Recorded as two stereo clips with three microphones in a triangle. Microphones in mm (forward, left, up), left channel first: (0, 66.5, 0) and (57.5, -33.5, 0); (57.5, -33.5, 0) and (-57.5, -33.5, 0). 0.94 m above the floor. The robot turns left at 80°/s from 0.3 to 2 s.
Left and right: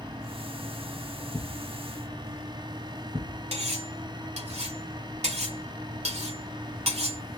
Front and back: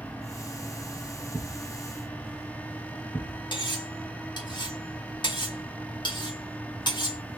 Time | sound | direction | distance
1.3 | a thud | 45° left | 2.5 m
3.5 | cutlery clinking | 45° right | 1.6 m